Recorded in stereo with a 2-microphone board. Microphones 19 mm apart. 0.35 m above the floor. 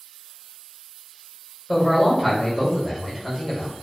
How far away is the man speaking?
About 1.2 m.